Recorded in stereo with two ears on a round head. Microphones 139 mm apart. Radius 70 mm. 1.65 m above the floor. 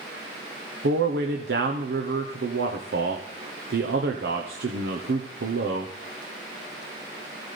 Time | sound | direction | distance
0.8 | a man speaking | 75° right (ahead or behind) | 1.0 m